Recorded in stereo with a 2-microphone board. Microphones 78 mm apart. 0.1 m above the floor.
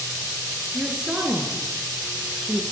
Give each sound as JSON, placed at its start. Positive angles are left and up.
{"t": 0.7, "sound": "a woman speaking", "side_deg": -15, "distance_m": 1.3}